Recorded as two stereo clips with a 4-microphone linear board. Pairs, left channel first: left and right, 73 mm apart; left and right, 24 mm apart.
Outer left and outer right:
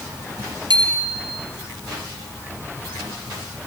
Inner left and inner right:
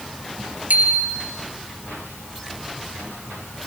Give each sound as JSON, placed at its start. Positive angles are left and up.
{"t": 0.7, "sound": "a bicycle bell", "side_deg": -75, "distance_m": 3.5}